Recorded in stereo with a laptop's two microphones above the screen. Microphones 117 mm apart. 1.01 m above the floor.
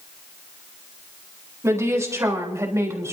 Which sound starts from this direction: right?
A woman speaking, at 1.6 s.